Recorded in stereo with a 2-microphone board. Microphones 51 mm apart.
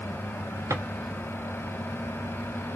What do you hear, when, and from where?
0.7 s a drawer: 70° right (ahead or behind), 1.0 m